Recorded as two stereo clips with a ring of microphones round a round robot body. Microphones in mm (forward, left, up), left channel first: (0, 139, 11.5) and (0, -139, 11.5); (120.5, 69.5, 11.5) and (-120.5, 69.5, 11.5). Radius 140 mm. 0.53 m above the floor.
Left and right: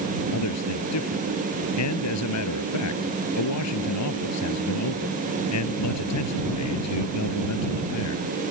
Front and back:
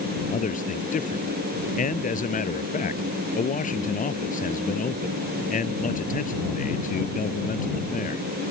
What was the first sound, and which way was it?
A man speaking, 55° left.